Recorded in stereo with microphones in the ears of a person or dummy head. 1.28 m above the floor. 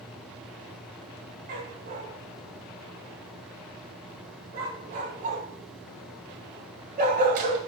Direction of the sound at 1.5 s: 40° right (ahead or behind).